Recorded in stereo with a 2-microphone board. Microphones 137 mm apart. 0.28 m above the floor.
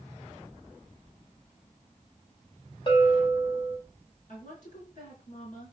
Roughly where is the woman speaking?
Left.